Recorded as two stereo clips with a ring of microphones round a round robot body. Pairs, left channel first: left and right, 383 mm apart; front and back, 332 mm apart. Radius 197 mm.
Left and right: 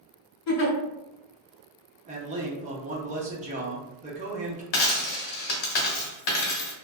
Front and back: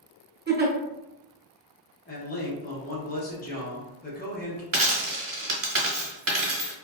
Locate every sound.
0.5 s a giggle: 115° left, 0.8 m
2.1 s a man speaking: 35° right, 0.7 m
4.7 s a dropped coin: 125° left, 0.9 m